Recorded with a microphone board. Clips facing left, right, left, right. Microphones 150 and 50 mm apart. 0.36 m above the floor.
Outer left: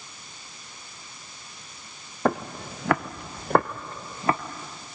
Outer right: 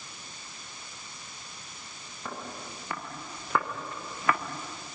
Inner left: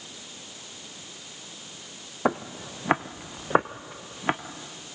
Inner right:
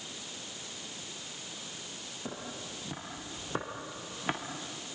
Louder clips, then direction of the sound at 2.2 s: Outer left 14 dB, inner left 15 dB; 65° left (ahead or behind).